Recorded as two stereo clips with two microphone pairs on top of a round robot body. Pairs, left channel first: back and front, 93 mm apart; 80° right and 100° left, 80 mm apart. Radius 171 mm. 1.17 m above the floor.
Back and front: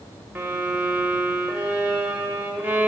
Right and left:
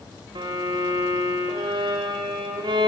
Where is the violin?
75° left, 0.8 m.